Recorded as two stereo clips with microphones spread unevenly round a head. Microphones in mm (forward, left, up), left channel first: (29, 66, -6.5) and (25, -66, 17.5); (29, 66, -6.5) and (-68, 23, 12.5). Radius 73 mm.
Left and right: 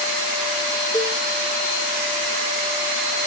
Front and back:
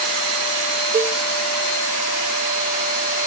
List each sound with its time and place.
0.9 s a cowbell: 165° left, 1.4 m